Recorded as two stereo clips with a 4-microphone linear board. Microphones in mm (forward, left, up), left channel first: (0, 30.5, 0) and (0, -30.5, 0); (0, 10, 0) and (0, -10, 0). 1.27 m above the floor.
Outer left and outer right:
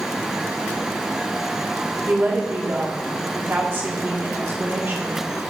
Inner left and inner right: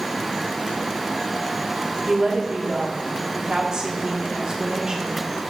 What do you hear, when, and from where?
2.1 s a woman speaking: 40° right (ahead or behind), 1.7 m